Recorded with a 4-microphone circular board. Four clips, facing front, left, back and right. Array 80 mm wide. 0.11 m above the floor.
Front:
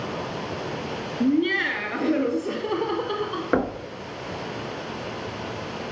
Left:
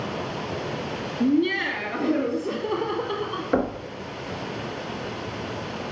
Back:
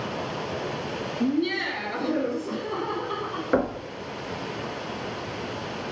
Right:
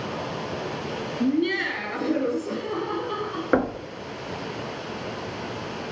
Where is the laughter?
20° right, 1.2 m; by 3.4 s 20° left, 2.5 m.